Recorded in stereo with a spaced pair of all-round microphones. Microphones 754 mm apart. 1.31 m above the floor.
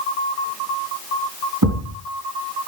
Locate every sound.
1.6 s a thud: 25° right (ahead or behind), 4.5 m